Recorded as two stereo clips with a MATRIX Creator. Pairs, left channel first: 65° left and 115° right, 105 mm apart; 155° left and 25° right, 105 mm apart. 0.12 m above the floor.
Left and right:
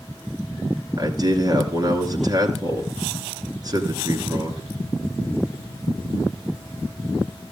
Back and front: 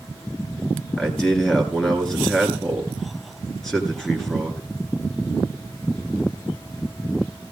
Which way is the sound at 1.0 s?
120° right.